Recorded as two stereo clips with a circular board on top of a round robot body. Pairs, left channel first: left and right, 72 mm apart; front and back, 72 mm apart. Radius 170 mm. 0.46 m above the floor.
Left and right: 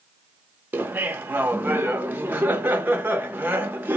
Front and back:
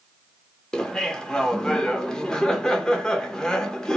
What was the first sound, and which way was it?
Laughter, 70° right.